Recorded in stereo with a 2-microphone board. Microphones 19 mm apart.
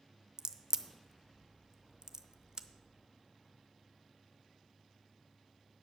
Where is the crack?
35° right (ahead or behind), 0.6 m.